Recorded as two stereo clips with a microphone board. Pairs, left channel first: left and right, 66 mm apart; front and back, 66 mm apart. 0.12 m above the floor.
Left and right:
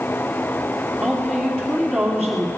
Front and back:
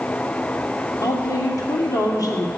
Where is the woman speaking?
5° left, 3 m.